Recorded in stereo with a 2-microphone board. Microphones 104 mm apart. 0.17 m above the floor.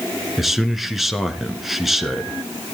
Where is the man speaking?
Centre (ahead or behind), 2 m.